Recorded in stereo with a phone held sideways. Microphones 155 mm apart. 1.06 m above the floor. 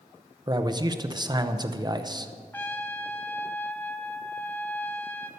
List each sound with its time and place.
0.5 s a man speaking: 25° right (ahead or behind), 0.7 m
2.5 s a trumpet: 15° left (ahead or behind), 1.1 m